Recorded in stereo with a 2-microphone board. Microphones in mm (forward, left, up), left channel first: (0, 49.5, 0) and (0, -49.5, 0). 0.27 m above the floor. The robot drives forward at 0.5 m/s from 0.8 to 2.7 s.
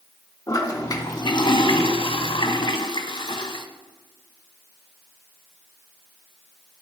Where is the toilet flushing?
40° left (ahead or behind), 0.9 m; by 3.6 s 55° left (ahead or behind), 0.7 m.